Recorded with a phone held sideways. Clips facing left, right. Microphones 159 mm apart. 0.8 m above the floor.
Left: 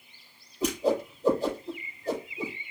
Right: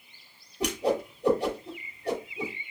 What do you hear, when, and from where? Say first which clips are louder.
0.6 s a whoosh: left 1 dB; 80° right, 5 m